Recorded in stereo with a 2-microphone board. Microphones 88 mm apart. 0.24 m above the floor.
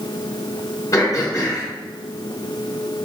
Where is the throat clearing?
40° left (ahead or behind), 1.8 m.